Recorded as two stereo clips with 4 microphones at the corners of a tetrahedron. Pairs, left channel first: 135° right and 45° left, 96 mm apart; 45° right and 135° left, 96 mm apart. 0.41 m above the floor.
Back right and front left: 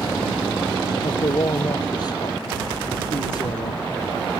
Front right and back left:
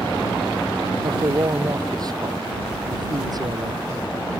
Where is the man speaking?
Straight behind.